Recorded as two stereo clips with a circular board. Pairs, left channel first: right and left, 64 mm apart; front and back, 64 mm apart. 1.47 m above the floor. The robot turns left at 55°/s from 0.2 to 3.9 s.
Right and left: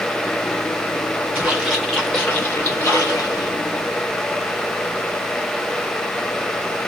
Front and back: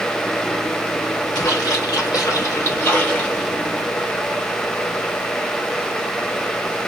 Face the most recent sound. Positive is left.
turn(degrees=-115)